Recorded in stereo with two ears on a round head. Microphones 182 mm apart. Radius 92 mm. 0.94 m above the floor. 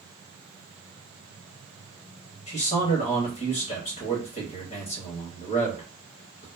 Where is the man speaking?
40° left (ahead or behind), 1.0 m.